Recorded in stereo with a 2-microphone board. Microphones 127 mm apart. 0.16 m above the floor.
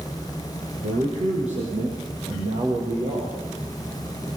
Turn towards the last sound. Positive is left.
turn(degrees=-60)  # may be behind; listen again after turning